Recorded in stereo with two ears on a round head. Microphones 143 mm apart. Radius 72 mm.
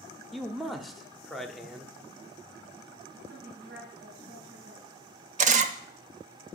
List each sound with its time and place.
0.3 s a man speaking: centre (ahead or behind), 0.7 m
3.3 s a woman speaking: 75° right (ahead or behind), 4 m
5.4 s a camera shutter: 50° right (ahead or behind), 0.6 m